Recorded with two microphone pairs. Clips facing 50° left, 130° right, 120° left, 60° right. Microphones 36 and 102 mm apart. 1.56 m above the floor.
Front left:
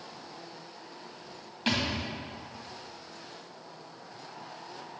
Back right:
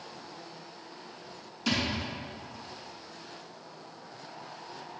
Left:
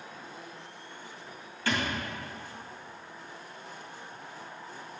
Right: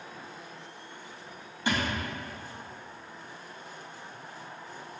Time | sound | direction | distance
1.7 | a thud | 5° left | 2 m